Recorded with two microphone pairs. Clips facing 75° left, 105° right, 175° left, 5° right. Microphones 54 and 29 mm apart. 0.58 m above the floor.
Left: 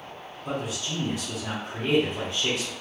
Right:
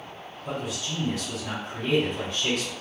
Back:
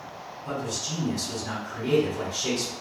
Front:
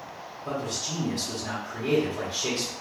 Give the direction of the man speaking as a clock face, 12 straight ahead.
11 o'clock.